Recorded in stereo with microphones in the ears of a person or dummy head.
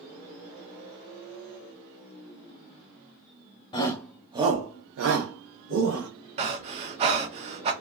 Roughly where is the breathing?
Right.